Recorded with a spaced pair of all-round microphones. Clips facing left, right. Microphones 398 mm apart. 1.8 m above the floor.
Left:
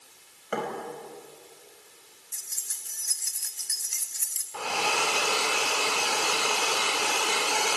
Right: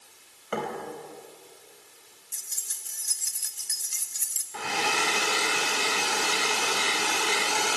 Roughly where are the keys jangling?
Right.